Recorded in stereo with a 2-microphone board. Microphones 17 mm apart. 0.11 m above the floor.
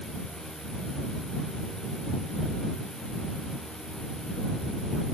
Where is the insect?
70° left (ahead or behind).